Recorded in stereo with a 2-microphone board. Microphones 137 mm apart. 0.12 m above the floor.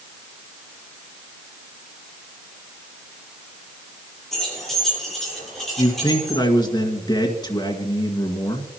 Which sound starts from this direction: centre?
Keys jangling, at 4.3 s.